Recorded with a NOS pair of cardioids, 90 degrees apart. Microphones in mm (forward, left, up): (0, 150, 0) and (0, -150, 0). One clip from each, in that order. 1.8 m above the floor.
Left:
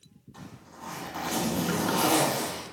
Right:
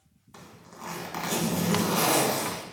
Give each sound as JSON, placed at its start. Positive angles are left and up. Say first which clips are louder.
{"t": 0.3, "sound": "a zipper", "louder": "right 1 dB", "azimuth_deg": -55, "distance_m": 2.0}